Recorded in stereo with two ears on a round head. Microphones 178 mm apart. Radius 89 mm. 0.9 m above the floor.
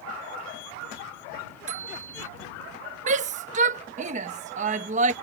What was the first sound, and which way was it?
A bicycle bell, 40° right (ahead or behind).